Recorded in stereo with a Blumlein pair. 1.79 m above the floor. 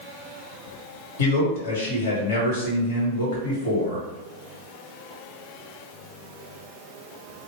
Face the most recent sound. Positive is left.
turn(degrees=60)